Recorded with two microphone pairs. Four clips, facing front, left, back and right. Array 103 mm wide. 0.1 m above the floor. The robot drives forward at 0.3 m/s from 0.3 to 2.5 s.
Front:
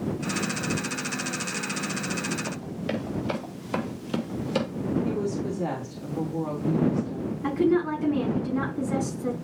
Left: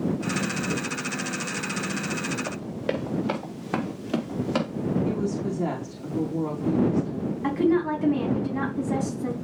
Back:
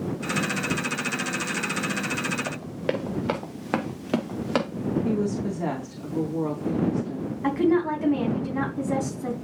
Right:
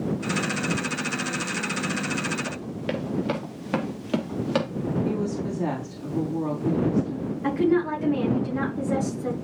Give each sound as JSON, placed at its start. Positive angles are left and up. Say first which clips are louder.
{"t": 2.5, "sound": "running footsteps", "louder": "left 1 dB, back 3 dB", "azimuth_deg": 155, "distance_m": 3.0}
{"t": 5.0, "sound": "a woman speaking", "louder": "even, back 2 dB", "azimuth_deg": 180, "distance_m": 5.0}
{"t": 7.4, "sound": "a woman speaking", "louder": "even, back 1 dB", "azimuth_deg": 160, "distance_m": 5.5}